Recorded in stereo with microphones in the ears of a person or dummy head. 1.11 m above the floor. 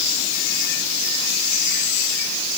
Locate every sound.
Only background noise.